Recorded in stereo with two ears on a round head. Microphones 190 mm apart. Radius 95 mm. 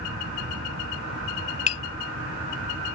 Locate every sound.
0.0 s an aircraft: 65° right (ahead or behind)
1.7 s tapping: 35° left (ahead or behind)